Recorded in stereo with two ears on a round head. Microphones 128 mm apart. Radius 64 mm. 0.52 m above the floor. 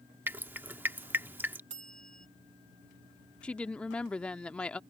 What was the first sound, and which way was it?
Dripping, 15° right (ahead or behind).